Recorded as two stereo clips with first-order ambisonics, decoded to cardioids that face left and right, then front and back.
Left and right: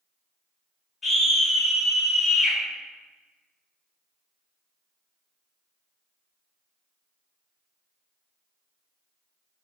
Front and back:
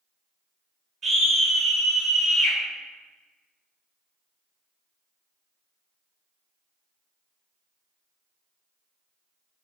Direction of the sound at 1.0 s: 155° left.